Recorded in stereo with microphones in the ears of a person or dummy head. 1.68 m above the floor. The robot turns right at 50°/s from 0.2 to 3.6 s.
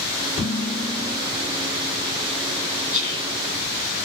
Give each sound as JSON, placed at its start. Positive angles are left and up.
{"t": 0.4, "sound": "dishes clattering", "azimuth_deg": 45, "distance_m": 2.0}
{"t": 2.9, "sound": "whispering", "side_deg": -5, "distance_m": 1.8}